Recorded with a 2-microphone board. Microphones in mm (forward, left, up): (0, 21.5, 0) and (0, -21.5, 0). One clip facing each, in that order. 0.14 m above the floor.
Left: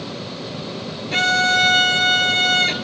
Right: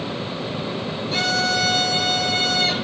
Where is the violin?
55° left (ahead or behind), 0.7 m.